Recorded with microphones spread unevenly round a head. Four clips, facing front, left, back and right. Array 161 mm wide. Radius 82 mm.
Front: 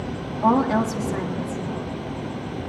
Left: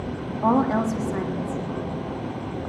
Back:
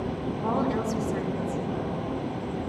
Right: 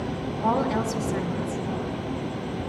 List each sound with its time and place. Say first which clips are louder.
0.4 s a woman speaking: left 4 dB, front 8 dB; 35° left, 3 m